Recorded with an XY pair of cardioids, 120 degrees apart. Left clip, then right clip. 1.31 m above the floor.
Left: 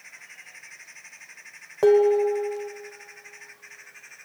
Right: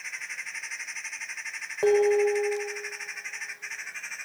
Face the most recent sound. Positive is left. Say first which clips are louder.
# left 3 dB
turn(degrees=35)